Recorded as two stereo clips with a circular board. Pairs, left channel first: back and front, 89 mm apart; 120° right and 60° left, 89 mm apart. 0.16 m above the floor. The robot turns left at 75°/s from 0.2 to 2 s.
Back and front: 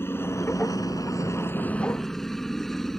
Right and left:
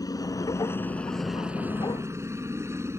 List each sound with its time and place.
0.0 s a helicopter: 130° right; by 3.0 s 95° left